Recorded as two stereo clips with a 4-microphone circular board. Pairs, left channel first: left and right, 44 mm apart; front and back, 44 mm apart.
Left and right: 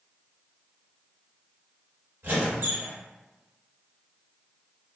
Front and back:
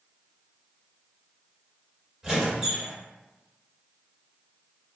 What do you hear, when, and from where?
2.2 s a squeak: 105° right, 1.5 m